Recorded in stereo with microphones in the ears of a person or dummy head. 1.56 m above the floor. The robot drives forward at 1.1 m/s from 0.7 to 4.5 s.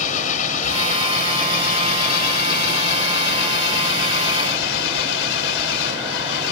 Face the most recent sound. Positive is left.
turn(degrees=85)